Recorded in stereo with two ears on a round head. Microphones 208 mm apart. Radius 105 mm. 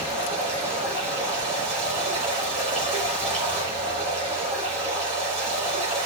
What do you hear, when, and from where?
0.0 s running water: 30° right (ahead or behind), 5 m